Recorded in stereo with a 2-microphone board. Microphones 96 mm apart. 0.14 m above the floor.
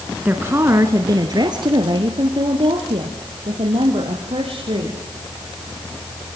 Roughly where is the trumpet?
I don't hear a trumpet.